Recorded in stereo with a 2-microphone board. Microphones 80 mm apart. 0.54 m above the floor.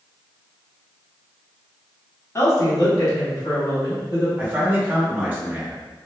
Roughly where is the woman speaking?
Left.